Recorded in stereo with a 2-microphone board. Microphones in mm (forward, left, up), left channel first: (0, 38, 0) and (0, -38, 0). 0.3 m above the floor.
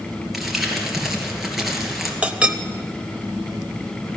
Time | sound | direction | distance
0.3 | crumpling | 5° right (ahead or behind) | 2.5 m
2.2 | a clink | 15° right (ahead or behind) | 0.8 m